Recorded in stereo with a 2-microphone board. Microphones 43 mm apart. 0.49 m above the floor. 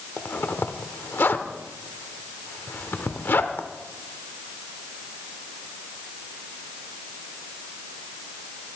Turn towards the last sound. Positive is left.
turn(degrees=55)  # may be behind; listen again after turning